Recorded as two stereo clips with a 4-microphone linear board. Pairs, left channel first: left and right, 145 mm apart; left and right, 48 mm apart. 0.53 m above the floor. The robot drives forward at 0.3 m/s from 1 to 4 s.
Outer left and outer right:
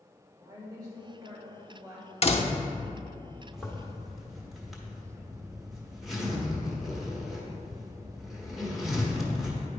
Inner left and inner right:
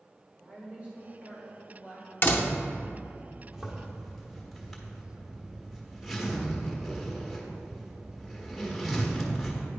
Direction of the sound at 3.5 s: Centre (ahead or behind).